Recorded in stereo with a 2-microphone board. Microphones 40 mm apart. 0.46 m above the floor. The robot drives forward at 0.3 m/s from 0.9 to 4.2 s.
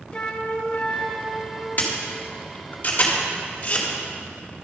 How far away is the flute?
About 1.0 m.